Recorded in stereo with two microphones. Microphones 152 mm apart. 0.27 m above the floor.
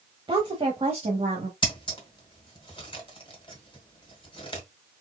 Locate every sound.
0.3 s a woman speaking: 35° right (ahead or behind), 1.1 m; by 1.5 s 40° right (ahead or behind), 1.7 m
1.6 s scissors: 35° left (ahead or behind), 1.4 m